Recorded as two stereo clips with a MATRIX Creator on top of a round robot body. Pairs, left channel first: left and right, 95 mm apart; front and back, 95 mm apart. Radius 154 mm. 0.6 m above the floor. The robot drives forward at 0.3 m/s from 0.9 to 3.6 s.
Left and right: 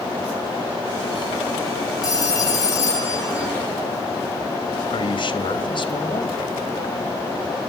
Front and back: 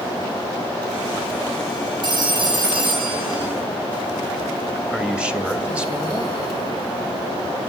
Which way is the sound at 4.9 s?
100° left.